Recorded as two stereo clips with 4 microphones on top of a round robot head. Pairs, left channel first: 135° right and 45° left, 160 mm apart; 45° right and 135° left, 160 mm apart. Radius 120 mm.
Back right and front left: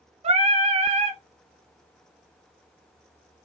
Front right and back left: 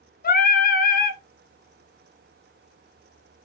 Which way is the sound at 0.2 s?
10° right.